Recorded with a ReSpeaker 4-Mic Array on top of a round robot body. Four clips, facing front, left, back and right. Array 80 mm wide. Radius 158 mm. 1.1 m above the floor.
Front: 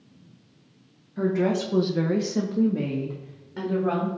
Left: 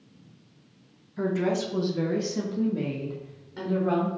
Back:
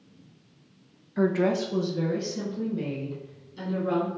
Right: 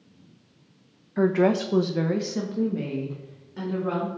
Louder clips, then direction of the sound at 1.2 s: Right 5 dB, even; 115° right.